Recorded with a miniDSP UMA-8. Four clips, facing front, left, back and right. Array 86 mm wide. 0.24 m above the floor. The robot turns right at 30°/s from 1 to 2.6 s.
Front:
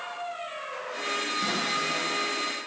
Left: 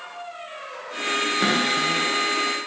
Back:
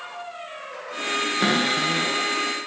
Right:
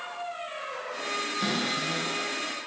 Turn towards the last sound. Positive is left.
turn(degrees=165)